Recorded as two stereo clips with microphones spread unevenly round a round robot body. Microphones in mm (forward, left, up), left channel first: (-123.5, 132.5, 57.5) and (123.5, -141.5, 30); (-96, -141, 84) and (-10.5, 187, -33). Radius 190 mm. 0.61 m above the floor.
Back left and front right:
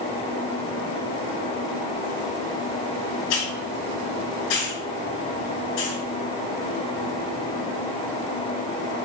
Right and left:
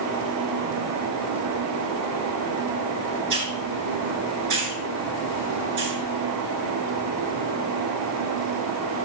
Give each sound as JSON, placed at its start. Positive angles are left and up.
{"t": 3.3, "sound": "a hiss", "azimuth_deg": 115, "distance_m": 3.0}